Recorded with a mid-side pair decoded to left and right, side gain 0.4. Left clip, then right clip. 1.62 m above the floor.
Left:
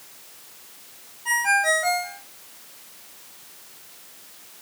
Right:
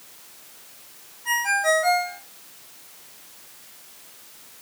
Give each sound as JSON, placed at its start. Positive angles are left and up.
{"t": 1.2, "sound": "a ringtone", "azimuth_deg": 20, "distance_m": 4.0}